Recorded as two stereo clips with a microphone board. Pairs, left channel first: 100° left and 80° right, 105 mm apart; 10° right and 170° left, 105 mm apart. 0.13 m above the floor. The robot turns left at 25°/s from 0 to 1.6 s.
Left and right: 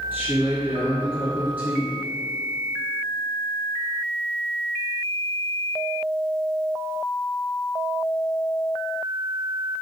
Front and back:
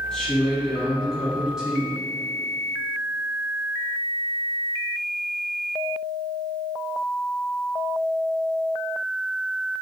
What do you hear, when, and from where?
0.1 s a woman speaking: 75° right, 1.1 m; by 2.0 s 115° right, 1.1 m